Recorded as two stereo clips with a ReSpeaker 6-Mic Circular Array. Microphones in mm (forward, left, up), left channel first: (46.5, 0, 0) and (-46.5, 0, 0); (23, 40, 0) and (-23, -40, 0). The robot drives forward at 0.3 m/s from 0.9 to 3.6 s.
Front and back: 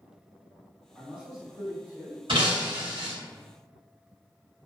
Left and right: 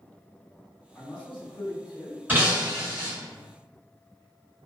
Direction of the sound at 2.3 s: 170° left.